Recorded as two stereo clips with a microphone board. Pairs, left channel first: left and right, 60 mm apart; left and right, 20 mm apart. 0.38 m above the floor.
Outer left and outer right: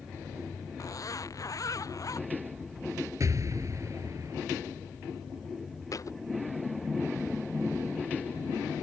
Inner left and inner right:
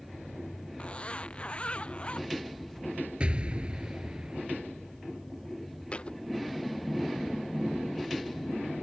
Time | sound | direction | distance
0.8 | a zipper | 70° left (ahead or behind) | ?
3.2 | an explosion | 60° right (ahead or behind) | ?
5.9 | a thud | 65° left (ahead or behind) | ?